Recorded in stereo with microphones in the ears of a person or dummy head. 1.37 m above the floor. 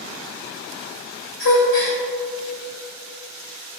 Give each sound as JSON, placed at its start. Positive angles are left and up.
{"t": 1.4, "sound": "a gasp", "side_deg": 50, "distance_m": 2.0}